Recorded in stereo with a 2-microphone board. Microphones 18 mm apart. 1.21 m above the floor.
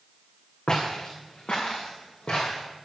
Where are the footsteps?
55° left (ahead or behind), 3.5 m.